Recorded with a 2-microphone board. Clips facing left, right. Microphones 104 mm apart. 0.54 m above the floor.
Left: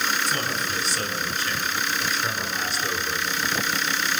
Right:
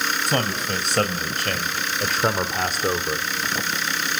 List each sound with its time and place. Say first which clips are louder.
0.3 s a man speaking: right 4 dB; 65° right (ahead or behind), 3.5 m; by 3.3 s 30° right (ahead or behind), 1.4 m